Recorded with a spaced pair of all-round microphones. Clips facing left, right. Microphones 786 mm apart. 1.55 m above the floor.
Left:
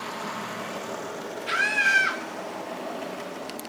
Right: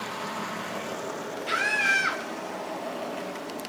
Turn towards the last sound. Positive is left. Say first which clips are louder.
# right 1 dB
turn(degrees=30)  # may be behind; listen again after turning